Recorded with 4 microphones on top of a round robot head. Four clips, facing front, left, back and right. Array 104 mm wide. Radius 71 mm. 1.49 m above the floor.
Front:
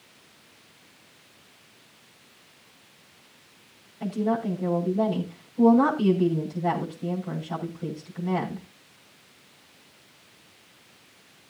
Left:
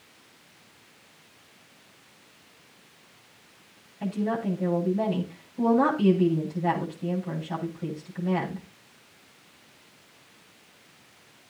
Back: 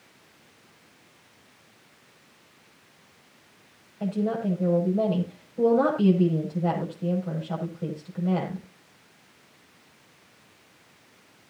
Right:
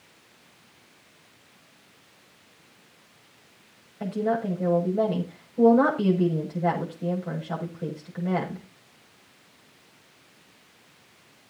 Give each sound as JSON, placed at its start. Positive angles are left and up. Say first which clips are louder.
{"t": 4.0, "sound": "a woman speaking", "louder": "right 2 dB, front 1 dB", "azimuth_deg": -110, "distance_m": 7.0}